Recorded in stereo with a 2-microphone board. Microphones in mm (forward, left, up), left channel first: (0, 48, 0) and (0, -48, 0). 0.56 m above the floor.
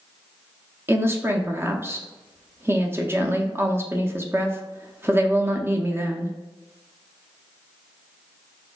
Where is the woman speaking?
25° right (ahead or behind), 0.6 m.